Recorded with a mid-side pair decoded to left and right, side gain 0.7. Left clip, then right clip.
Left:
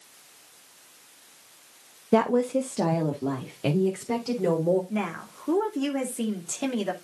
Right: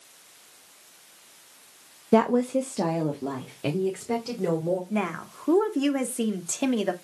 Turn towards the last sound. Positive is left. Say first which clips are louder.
# right 2 dB
turn(degrees=-15)